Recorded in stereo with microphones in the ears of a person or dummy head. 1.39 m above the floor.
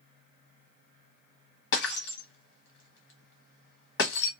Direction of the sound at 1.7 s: 60° left (ahead or behind).